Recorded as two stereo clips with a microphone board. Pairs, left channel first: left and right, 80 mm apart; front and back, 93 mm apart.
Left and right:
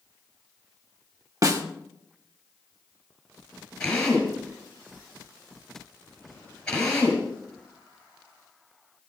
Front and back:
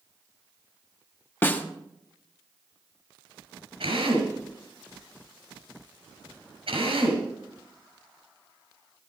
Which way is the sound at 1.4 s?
65° right.